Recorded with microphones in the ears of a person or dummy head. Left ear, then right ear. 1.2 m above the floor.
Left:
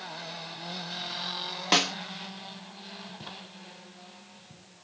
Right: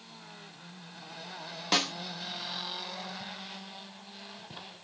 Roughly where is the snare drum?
Centre.